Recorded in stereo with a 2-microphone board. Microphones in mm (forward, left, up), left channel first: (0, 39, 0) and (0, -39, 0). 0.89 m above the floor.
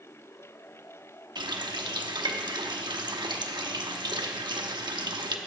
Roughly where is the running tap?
Right.